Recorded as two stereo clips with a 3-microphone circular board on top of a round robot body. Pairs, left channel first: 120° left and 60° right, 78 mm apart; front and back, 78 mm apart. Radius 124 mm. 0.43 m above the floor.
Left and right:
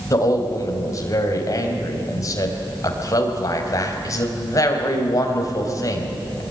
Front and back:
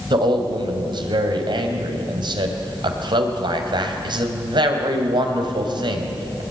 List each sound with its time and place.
0.1 s a man speaking: 170° left, 3.5 m